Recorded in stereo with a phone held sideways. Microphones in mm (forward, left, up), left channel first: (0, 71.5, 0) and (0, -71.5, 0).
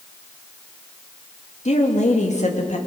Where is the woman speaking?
55° left (ahead or behind), 2.5 m.